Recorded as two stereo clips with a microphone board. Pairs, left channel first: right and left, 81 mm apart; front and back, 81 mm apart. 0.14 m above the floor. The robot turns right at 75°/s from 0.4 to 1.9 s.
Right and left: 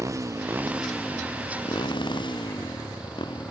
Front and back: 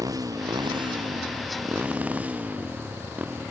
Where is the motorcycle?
140° left; by 3.5 s 105° right.